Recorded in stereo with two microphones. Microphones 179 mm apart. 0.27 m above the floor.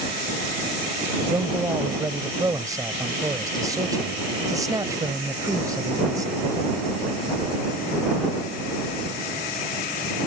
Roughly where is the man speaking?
Right.